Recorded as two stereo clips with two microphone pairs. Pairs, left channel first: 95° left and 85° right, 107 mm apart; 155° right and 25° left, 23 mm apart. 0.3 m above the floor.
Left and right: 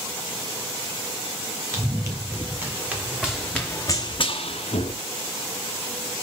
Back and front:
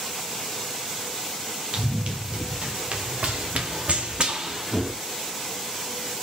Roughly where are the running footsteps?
Ahead.